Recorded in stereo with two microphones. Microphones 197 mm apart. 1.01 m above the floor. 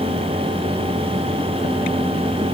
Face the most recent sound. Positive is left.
No sound to turn to.